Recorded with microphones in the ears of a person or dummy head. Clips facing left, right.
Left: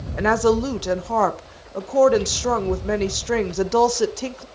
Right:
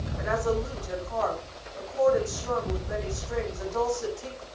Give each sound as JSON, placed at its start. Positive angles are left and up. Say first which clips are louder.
{"t": 0.2, "sound": "a woman speaking", "louder": "left 9 dB", "side_deg": 85, "distance_m": 1.9}